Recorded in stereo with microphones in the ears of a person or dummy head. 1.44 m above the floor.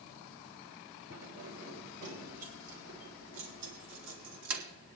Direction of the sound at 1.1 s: 80° right.